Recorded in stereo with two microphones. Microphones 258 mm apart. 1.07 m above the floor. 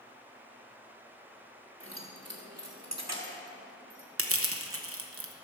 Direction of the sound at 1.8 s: 50° right (ahead or behind).